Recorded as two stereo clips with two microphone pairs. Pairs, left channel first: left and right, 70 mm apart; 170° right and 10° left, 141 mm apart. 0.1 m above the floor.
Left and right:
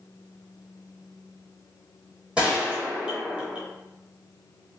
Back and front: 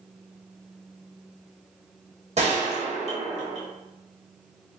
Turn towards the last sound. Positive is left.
turn(degrees=-20)